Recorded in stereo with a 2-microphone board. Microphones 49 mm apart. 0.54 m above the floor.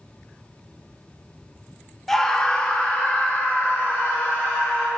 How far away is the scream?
About 0.7 m.